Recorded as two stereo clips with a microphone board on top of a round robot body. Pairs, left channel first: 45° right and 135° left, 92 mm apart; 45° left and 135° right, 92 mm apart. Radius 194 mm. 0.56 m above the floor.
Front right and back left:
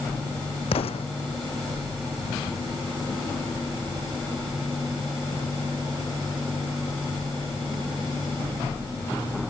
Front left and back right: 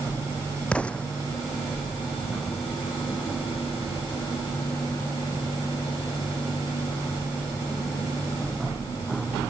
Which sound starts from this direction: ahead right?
An explosion, at 0.7 s.